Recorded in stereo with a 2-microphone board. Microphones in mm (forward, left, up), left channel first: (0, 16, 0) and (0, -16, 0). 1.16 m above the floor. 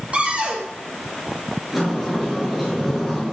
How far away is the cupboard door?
About 3.5 m.